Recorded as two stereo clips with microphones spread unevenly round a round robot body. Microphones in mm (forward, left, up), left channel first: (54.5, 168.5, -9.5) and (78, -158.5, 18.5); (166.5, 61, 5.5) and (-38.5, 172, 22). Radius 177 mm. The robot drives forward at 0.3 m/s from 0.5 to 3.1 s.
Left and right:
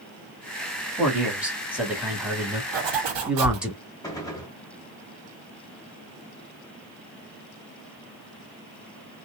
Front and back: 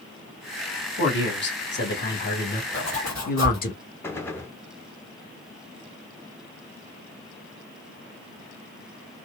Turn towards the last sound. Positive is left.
turn(degrees=35)